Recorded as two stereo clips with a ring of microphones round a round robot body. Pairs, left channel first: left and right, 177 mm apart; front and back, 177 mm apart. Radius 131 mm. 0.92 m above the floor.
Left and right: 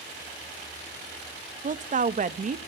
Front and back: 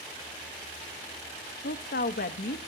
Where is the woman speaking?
45° right, 0.9 m.